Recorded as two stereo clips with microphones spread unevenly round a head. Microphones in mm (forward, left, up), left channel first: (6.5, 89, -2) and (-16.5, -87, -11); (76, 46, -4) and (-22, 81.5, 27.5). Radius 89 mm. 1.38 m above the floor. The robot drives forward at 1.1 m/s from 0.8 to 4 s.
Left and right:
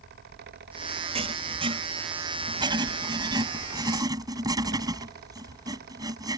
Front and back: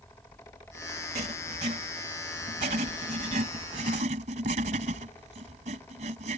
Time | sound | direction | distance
1.1 | writing | 155° right | ?